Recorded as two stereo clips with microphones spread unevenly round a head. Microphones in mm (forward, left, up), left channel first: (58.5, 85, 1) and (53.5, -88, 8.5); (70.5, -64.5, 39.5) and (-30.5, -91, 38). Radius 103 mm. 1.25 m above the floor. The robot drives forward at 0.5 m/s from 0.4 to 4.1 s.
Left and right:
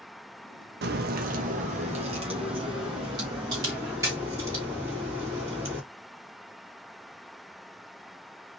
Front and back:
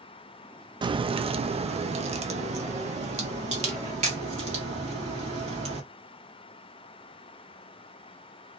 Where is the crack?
125° right, 0.6 m; by 5.8 s 165° right, 2 m.